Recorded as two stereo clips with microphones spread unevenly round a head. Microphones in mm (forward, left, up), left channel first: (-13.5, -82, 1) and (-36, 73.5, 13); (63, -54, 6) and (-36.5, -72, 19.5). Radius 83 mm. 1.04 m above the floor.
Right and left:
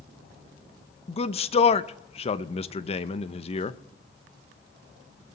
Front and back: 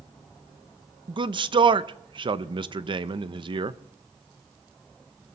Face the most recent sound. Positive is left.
turn(degrees=-130)